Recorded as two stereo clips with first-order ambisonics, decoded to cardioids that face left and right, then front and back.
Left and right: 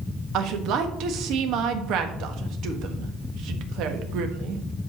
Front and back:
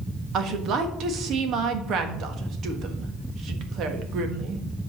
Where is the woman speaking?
130° right, 1.3 m.